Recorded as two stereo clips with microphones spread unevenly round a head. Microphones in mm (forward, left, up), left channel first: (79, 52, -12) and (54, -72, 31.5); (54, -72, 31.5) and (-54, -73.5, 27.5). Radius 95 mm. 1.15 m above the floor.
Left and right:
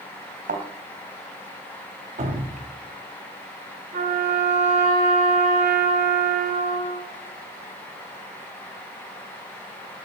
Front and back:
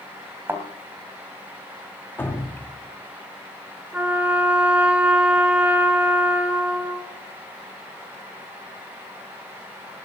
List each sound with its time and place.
0.5 s a thud: 110° right, 3 m
2.2 s dripping: 70° right, 3 m
3.9 s a trumpet: 100° right, 4.5 m